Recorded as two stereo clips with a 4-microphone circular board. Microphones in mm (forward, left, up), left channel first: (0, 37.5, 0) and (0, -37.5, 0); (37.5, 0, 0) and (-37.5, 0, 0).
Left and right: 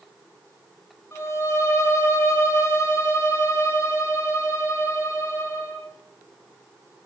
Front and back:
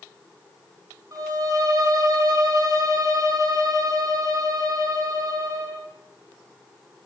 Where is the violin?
140° left, 4.5 m.